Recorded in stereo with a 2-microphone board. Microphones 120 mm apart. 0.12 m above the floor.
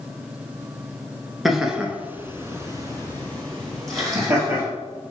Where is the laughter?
Centre (ahead or behind), 1.4 m; by 4.6 s 25° right (ahead or behind), 3 m.